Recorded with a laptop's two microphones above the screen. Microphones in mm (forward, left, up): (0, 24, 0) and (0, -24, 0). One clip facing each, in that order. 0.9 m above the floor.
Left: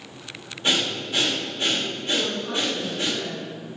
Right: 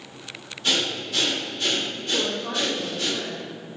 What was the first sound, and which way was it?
Breathing, 25° left (ahead or behind).